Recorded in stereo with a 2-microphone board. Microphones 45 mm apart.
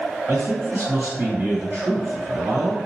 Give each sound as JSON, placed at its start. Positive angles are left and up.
{"t": 0.3, "sound": "a man speaking", "side_deg": -55, "distance_m": 1.9}